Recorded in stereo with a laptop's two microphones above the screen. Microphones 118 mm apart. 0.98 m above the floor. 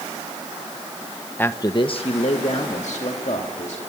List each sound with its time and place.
1.4 s a man speaking: 15° left (ahead or behind), 0.7 m; by 3.8 s 70° left (ahead or behind), 3 m